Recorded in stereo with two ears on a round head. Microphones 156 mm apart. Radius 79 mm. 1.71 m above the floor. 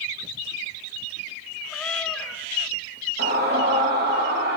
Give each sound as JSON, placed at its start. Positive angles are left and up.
{"t": 1.7, "sound": "a cat meowing", "side_deg": 5, "distance_m": 2.5}
{"t": 3.2, "sound": "a scream", "side_deg": -65, "distance_m": 3.0}